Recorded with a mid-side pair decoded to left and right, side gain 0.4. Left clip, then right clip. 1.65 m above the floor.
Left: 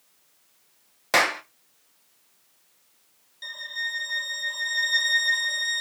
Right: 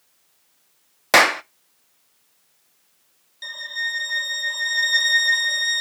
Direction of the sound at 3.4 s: 35° right.